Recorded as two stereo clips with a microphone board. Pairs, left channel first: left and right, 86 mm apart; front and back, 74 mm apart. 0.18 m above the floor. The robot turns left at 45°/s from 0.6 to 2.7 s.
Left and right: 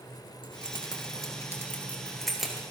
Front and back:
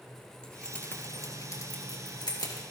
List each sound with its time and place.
0.4 s keys jangling: 80° left, 2.5 m; by 2.6 s 15° right, 2.5 m